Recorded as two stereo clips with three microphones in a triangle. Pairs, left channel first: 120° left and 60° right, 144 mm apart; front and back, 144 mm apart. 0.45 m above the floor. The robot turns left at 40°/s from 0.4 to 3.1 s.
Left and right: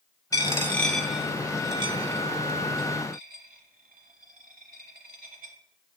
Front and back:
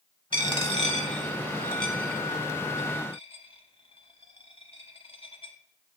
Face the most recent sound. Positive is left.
turn(degrees=-55)